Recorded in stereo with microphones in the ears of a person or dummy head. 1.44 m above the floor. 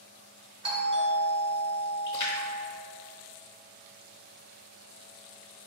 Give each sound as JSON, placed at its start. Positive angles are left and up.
{"t": 0.6, "sound": "a doorbell", "side_deg": -30, "distance_m": 1.0}
{"t": 2.1, "sound": "a splash", "side_deg": 25, "distance_m": 0.7}